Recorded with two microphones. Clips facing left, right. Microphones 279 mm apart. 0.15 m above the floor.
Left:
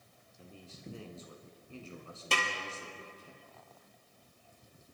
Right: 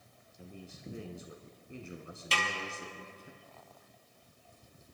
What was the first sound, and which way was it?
A man speaking, 15° right (ahead or behind).